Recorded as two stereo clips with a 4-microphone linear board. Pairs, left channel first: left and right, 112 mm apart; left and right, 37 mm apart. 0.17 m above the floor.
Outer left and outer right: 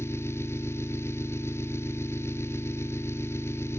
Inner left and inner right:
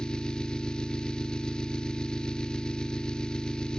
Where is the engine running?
25° left (ahead or behind), 1.5 m.